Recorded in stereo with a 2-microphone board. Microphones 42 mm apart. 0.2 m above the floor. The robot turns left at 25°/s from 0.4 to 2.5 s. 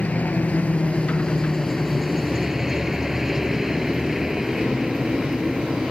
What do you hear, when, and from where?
0.0 s a helicopter: 40° left; by 5.9 s 10° right